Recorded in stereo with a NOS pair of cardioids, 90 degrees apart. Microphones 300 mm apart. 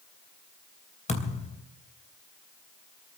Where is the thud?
25° left, 3 m.